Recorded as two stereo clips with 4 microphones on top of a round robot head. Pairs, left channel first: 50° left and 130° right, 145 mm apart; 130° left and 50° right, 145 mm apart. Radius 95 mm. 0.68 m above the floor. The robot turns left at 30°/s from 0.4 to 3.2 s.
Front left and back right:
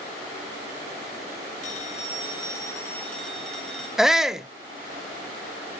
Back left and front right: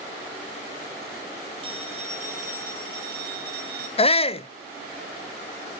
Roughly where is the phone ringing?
Ahead.